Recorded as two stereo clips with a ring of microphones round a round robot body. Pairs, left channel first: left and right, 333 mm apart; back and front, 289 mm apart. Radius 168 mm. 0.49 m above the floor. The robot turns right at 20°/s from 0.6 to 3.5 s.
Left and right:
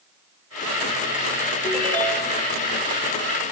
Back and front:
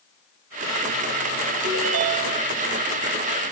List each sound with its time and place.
1.6 s a ringtone: straight ahead, 0.9 m; by 2.5 s 15° left, 0.9 m